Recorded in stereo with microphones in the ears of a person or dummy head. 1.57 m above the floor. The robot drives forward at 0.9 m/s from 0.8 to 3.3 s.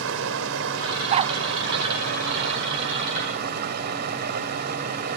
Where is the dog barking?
30° right (ahead or behind).